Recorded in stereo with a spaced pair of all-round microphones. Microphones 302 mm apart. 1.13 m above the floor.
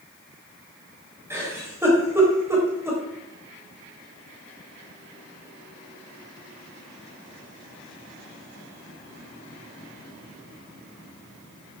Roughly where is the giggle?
Centre.